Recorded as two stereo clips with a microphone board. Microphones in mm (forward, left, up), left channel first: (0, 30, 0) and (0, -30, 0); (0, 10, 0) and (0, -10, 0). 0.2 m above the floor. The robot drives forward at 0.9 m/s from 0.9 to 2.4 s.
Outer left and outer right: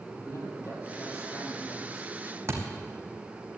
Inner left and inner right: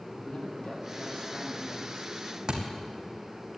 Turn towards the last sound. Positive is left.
turn(degrees=-45)  # may be behind; listen again after turning